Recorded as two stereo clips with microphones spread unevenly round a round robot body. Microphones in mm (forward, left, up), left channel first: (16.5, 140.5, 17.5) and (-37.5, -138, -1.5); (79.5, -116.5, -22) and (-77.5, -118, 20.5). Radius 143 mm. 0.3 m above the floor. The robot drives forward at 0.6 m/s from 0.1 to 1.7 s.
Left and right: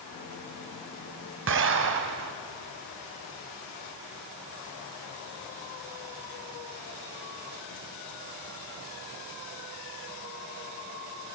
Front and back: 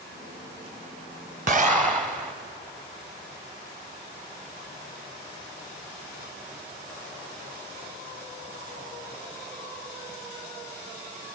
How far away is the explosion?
About 1.5 m.